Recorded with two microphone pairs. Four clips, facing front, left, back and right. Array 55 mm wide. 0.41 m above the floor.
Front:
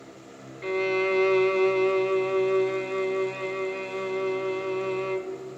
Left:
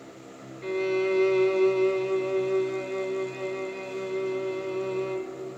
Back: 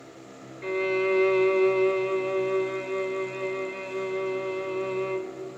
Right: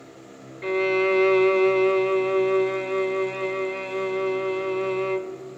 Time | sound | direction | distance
0.6 | a violin | 95° right | 1.0 m